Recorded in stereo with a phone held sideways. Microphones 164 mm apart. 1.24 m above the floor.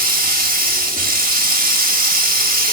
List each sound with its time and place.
0.0 s running water: 60° right (ahead or behind), 1.6 m